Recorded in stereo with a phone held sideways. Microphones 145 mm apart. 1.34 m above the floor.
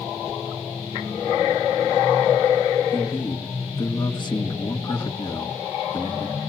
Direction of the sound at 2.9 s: 35° left (ahead or behind).